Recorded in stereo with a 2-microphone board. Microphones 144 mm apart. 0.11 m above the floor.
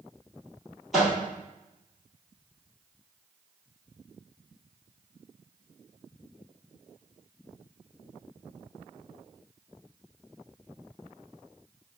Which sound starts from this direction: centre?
A microwave, at 0.9 s.